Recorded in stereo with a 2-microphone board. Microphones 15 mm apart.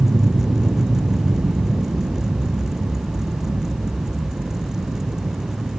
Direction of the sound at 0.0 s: 55° right (ahead or behind).